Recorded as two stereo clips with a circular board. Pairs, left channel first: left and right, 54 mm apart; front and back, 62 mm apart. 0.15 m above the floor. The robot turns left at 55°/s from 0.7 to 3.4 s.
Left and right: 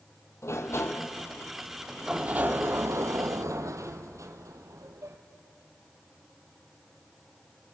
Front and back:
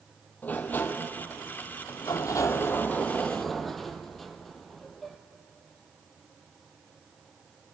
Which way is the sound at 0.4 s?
60° left.